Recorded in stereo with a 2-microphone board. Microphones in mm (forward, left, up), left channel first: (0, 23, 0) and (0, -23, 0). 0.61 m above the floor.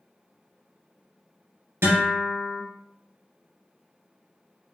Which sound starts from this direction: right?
A guitar, at 1.8 s.